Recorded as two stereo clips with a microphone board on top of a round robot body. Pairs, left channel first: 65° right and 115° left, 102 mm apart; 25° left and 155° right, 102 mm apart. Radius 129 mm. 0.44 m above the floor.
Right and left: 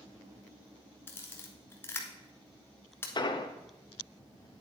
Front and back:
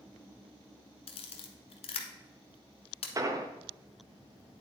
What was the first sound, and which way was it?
A camera shutter, straight ahead.